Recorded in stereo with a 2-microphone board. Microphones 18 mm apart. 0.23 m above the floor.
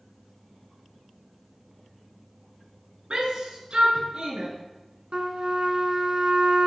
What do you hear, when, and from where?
3.1 s a shout: 65° right (ahead or behind), 2.5 m; by 4.5 s 70° right (ahead or behind), 3 m
5.1 s a trumpet: 65° right (ahead or behind), 1.1 m